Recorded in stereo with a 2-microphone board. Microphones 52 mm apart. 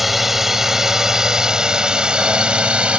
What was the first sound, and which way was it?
A drone, 5° right (ahead or behind).